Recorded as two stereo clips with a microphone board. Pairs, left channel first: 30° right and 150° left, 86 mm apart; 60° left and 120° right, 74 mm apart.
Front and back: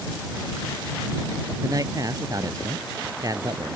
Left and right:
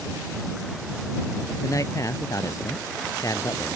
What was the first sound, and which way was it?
A man speaking, 105° left.